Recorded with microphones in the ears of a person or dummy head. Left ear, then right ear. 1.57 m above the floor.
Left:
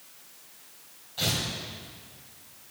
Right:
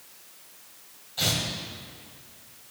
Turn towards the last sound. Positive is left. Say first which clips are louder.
# right 2 dB
turn(degrees=-10)  # may be behind; listen again after turning